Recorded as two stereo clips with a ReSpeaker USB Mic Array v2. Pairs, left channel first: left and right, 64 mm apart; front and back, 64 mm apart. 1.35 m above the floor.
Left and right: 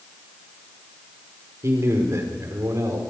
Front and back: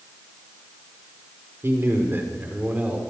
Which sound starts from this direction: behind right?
A man speaking, at 1.6 s.